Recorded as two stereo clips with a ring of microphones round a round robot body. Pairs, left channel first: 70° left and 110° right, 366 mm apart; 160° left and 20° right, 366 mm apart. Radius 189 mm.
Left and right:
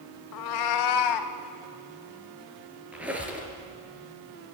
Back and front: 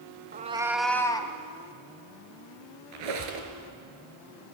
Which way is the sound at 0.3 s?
40° left.